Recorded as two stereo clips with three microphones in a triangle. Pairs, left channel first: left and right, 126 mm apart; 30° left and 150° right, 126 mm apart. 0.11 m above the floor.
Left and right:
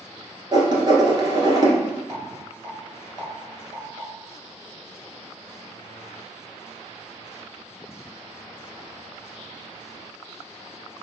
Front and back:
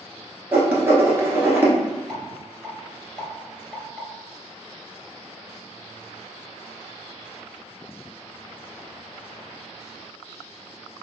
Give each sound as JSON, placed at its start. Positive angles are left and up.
{"t": 0.5, "sound": "writing", "azimuth_deg": -90, "distance_m": 1.2}
{"t": 2.1, "sound": "a rattle", "azimuth_deg": 120, "distance_m": 1.8}